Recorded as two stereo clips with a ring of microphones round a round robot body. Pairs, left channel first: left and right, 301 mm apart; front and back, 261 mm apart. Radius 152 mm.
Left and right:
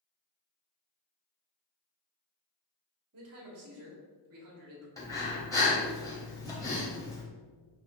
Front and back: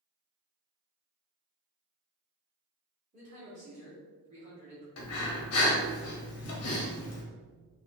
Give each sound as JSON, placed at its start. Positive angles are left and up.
{"t": 3.1, "sound": "a man speaking", "azimuth_deg": -120, "distance_m": 1.3}
{"t": 5.0, "sound": "breathing", "azimuth_deg": 10, "distance_m": 1.0}